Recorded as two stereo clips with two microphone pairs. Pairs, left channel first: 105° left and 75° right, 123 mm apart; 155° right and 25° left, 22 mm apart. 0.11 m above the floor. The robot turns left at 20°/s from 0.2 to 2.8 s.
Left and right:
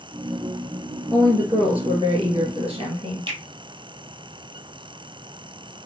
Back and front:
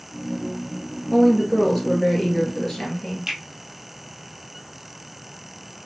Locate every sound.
1.1 s a woman speaking: 40° right, 2 m; by 3.2 s 75° right, 2 m
3.3 s a finger snap: 30° right, 1.9 m